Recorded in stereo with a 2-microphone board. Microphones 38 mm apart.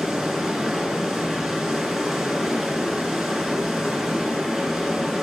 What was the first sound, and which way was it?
Running water, 10° right (ahead or behind).